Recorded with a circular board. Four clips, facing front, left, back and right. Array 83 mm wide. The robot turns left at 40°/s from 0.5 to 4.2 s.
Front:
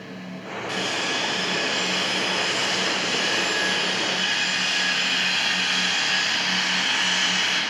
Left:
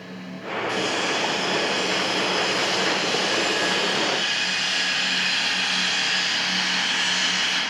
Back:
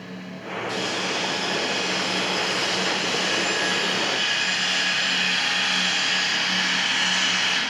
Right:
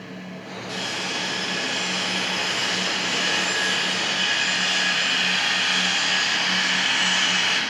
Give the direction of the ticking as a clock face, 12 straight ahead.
I don't hear ticking.